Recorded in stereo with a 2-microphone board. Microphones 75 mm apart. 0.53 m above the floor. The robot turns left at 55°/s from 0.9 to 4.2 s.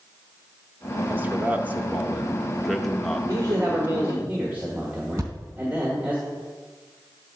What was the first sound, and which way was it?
A man speaking, 25° right (ahead or behind).